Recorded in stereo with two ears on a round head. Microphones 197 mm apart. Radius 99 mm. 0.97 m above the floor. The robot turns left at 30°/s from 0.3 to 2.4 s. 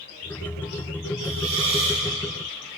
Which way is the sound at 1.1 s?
85° right.